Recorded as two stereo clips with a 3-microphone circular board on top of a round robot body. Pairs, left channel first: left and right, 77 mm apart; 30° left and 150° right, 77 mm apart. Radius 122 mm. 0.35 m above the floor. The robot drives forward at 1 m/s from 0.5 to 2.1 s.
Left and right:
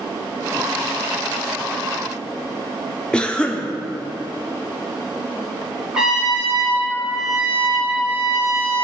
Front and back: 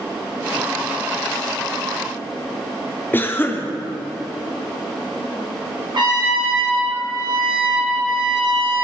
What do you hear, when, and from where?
3.1 s a cough: 30° left, 0.9 m
5.9 s a trumpet: 170° right, 3 m